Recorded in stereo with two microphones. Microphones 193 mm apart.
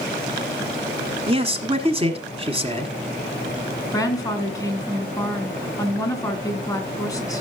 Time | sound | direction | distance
1.3 | a man speaking | 30° right (ahead or behind) | 1.6 m
3.9 | a woman speaking | 20° left (ahead or behind) | 2.5 m